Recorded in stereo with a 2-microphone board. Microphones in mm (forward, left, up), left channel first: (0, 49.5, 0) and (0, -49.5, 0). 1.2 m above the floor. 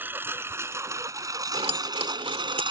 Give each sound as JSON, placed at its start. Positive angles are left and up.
{"t": 0.0, "sound": "a lawn mower", "side_deg": -20}
{"t": 1.5, "sound": "keys jangling", "side_deg": -85}